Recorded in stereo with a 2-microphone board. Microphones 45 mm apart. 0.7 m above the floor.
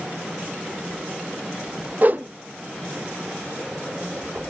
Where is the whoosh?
40° right (ahead or behind), 0.5 m.